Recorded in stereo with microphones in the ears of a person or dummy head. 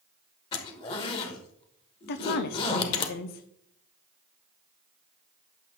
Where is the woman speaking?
60° left (ahead or behind), 0.5 m.